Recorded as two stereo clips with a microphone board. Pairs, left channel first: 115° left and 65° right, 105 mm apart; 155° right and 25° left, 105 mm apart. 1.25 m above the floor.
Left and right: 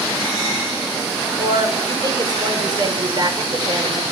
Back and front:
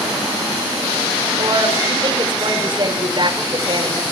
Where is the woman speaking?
20° right, 5 m.